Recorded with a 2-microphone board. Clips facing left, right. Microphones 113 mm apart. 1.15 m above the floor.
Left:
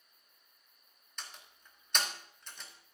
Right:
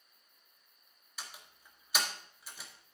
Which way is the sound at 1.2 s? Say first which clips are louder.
Right 1 dB; 5° right (ahead or behind).